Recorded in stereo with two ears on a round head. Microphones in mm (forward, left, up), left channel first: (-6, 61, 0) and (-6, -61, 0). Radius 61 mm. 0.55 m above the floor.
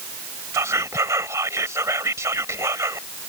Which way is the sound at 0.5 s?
20° right (ahead or behind).